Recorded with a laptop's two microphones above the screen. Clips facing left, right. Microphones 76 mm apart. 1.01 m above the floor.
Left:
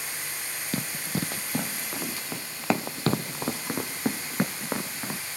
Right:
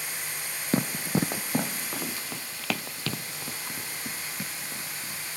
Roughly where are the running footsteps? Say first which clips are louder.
Right 5 dB; right.